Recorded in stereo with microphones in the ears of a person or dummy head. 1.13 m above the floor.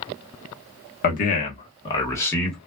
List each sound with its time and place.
1.0 s a man speaking: 45° left (ahead or behind), 1.2 m; by 2.6 s 5° left (ahead or behind), 1.3 m